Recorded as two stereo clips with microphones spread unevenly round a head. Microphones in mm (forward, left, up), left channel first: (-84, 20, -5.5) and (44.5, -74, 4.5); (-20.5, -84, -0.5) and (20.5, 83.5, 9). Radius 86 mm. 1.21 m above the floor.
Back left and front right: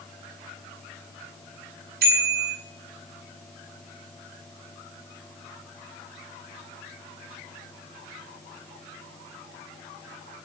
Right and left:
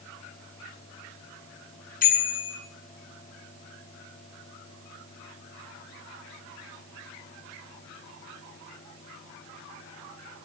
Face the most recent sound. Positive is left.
turn(degrees=-60)